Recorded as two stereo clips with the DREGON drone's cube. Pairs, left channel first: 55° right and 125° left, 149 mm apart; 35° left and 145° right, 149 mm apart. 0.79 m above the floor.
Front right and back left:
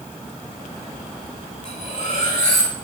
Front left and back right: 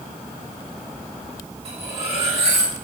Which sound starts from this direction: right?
Cutlery clinking, at 1.6 s.